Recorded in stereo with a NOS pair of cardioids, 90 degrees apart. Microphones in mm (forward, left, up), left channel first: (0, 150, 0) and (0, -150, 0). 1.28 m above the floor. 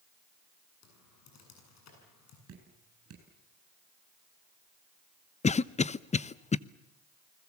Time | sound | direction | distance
0.8 | typing on a keyboard | 60° left | 8 m
2.5 | dripping | 50° right | 9 m
5.4 | a cough | 25° left | 0.8 m